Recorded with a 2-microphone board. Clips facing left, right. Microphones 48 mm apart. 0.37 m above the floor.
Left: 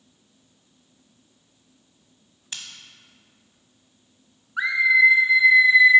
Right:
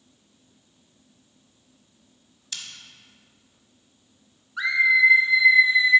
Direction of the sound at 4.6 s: 25° left (ahead or behind).